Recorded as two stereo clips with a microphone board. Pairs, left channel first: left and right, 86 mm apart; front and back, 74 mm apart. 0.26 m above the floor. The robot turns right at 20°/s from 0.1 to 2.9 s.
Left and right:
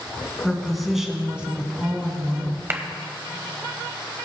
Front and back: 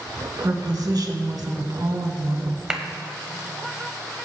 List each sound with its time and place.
0.4 s a woman speaking: 175° left, 1.9 m; by 2.6 s 145° right, 1.9 m
2.7 s a clap: 110° right, 1.1 m